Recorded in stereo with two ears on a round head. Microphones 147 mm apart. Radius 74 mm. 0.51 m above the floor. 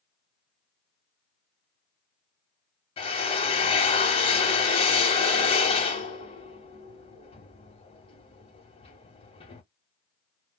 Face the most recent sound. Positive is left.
turn(degrees=35)  # may be behind; listen again after turning